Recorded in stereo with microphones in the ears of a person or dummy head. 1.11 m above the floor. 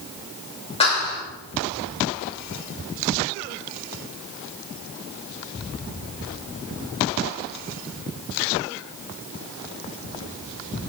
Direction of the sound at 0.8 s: 30° left (ahead or behind).